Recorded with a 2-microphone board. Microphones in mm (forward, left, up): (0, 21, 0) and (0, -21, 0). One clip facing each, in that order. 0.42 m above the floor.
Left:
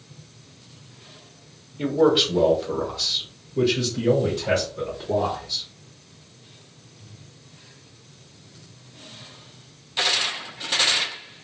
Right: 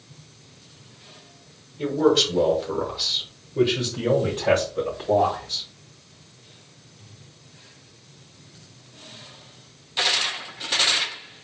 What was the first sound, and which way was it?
A man speaking, 25° left (ahead or behind).